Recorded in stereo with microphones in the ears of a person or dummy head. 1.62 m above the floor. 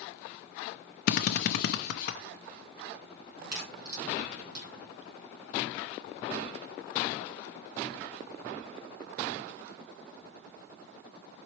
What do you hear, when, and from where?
1.1 s a drill: 55° left (ahead or behind), 0.6 m
3.4 s a crack: 55° right (ahead or behind), 1.7 m